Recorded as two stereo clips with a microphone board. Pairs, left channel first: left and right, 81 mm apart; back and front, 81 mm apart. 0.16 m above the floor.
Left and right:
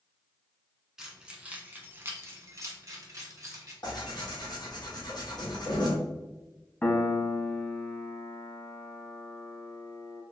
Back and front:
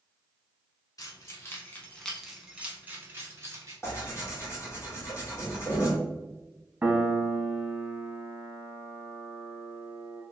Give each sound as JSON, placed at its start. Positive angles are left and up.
{"t": 1.0, "sound": "keys jangling", "azimuth_deg": -175, "distance_m": 1.1}
{"t": 3.8, "sound": "tearing paper", "azimuth_deg": 125, "distance_m": 1.5}
{"t": 6.8, "sound": "a piano", "azimuth_deg": 50, "distance_m": 0.6}